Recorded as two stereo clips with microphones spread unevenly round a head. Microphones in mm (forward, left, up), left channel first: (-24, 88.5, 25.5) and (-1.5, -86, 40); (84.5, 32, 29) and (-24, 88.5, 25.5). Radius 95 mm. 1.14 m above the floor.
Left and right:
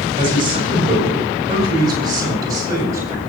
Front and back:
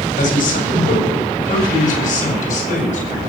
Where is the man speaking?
20° right, 7 m; by 3.2 s 10° right, 8 m.